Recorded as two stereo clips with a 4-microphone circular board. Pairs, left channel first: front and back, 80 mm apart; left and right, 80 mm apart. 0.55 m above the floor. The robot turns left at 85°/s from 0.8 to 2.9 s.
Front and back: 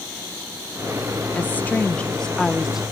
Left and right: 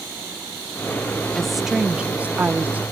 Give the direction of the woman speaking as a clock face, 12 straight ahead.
12 o'clock.